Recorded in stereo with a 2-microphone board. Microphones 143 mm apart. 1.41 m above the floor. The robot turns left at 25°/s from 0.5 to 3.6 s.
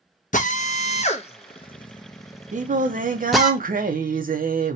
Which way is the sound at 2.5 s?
60° right (ahead or behind).